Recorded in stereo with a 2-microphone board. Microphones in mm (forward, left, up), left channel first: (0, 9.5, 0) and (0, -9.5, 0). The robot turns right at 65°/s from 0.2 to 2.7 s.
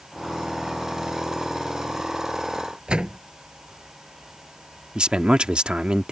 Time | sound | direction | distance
2.9 | a door slam | 55° right (ahead or behind) | ?
5.0 | a man speaking | 60° right (ahead or behind) | ?